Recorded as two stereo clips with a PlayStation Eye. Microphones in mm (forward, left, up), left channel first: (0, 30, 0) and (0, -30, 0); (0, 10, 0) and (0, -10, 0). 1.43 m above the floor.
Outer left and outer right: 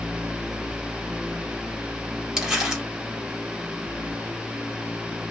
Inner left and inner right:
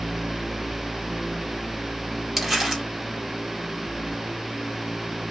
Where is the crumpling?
10° right (ahead or behind), 1.6 m.